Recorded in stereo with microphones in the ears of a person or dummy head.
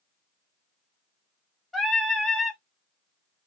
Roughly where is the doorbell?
No doorbell in this recording.